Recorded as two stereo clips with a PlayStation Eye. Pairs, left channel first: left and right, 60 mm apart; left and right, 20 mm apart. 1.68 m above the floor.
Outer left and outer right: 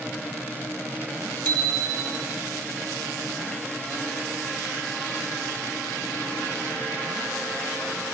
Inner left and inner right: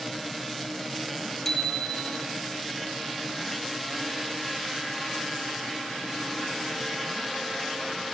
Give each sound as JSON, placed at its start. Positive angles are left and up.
{"t": 1.4, "sound": "a bicycle bell", "side_deg": 25, "distance_m": 4.5}